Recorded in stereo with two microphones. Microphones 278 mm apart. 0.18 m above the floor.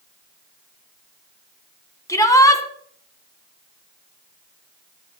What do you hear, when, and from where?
2.1 s a shout: 15° left (ahead or behind), 1.3 m